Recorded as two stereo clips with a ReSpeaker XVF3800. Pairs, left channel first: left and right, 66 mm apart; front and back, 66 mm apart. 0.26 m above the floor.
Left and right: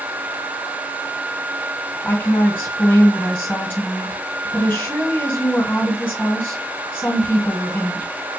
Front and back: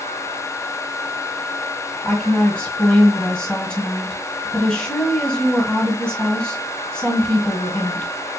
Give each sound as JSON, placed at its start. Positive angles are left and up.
{"t": 2.0, "sound": "a woman speaking", "azimuth_deg": 60, "distance_m": 1.7}